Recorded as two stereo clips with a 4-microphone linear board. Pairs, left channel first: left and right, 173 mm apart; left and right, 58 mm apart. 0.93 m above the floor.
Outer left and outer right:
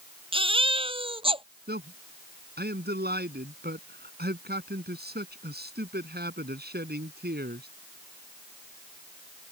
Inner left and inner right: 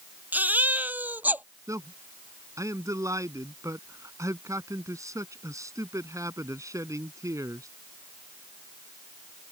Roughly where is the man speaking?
Right.